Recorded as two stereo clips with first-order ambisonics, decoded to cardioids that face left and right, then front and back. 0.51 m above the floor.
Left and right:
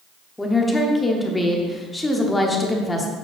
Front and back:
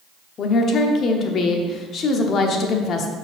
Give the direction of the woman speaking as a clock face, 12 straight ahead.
12 o'clock.